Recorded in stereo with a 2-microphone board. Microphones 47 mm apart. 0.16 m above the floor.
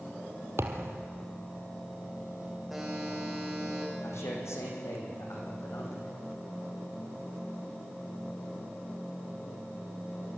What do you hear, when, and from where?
0.6 s a thud: 65° right (ahead or behind), 1.9 m
2.7 s a buzzer: centre (ahead or behind), 7.5 m
4.0 s a man speaking: 80° left, 7 m